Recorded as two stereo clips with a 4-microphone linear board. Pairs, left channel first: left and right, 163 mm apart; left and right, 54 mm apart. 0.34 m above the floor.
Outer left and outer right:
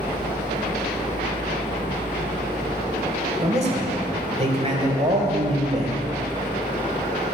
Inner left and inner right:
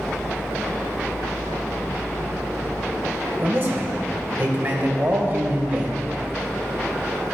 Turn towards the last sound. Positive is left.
turn(degrees=-40)  # may be behind; listen again after turning